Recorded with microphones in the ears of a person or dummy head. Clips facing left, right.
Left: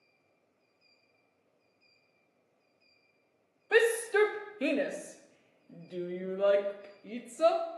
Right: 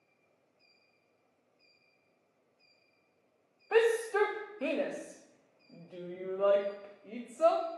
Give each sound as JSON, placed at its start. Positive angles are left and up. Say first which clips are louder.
{"t": 3.7, "sound": "a shout", "louder": "left 1 dB", "side_deg": 15, "distance_m": 0.7}